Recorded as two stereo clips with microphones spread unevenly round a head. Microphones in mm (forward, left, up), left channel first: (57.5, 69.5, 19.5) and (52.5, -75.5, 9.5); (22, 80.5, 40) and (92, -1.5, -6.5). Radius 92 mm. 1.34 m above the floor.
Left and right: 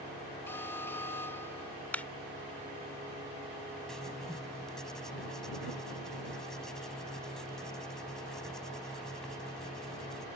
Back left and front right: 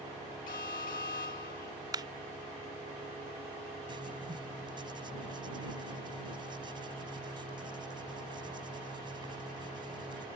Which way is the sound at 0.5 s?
165° left.